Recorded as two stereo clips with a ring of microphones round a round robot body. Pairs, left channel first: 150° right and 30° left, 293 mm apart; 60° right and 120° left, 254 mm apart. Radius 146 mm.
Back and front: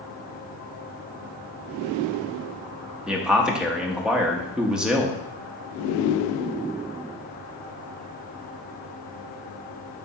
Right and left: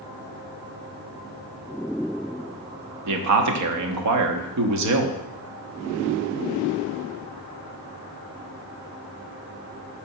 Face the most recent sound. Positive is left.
turn(degrees=115)